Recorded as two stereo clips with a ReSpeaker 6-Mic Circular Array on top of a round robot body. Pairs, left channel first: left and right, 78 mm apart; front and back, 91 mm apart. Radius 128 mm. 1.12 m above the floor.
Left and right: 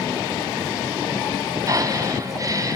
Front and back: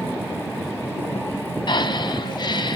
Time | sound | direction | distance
1.7 | breathing | 40° right | 1.0 m